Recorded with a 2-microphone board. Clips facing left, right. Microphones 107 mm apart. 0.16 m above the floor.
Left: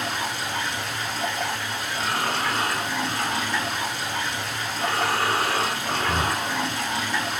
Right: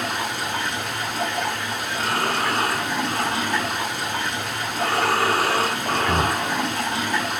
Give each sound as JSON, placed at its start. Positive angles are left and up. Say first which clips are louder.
{"t": 0.0, "sound": "running water", "louder": "right 2 dB", "side_deg": -55, "distance_m": 4.5}
{"t": 1.9, "sound": "breathing", "louder": "right 2 dB", "side_deg": -75, "distance_m": 2.0}